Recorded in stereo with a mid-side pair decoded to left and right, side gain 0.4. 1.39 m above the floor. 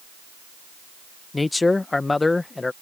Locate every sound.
1.3 s a man speaking: 25° left